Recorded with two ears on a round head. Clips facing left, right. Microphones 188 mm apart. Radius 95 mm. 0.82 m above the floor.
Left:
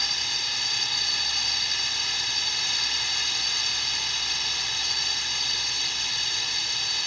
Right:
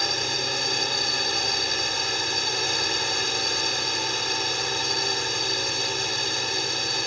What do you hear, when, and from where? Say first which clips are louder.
0.0 s a drone: right 12 dB; 45° right (ahead or behind)